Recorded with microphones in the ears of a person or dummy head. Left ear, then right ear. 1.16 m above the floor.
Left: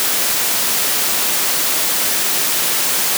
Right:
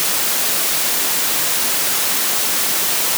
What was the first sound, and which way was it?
Only background noise.